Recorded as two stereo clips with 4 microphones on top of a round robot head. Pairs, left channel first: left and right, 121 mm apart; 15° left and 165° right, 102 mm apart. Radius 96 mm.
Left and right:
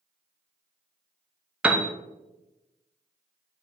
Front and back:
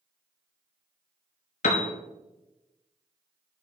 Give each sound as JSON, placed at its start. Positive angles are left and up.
{"t": 1.6, "sound": "a piano", "azimuth_deg": -10, "distance_m": 0.5}